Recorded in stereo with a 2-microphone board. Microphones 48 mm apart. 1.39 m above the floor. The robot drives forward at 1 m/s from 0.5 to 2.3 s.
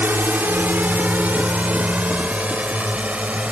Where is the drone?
45° right (ahead or behind); by 3.5 s 30° right (ahead or behind).